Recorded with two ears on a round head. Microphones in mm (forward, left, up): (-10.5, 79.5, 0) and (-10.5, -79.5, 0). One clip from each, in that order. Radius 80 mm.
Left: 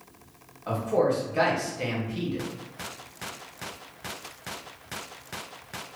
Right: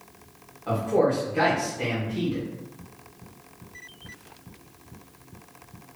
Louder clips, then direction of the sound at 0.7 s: Right 2 dB; 25° left (ahead or behind).